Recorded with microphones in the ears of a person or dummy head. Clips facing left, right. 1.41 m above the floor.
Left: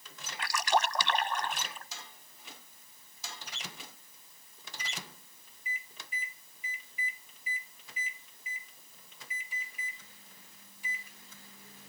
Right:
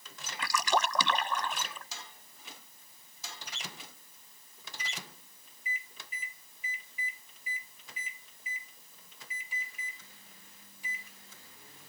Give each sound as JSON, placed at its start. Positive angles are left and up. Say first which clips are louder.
{"t": 0.4, "sound": "a splash", "louder": "even", "side_deg": -80}